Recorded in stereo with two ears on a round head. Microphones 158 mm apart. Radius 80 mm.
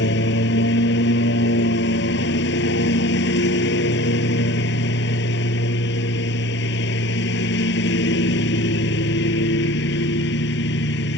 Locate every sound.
0.0 s a lawn mower: 75° left (ahead or behind)